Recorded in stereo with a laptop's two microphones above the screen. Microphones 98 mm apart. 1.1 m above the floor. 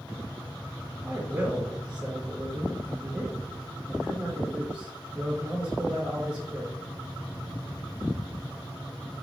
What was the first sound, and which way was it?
A man speaking, 15° right (ahead or behind).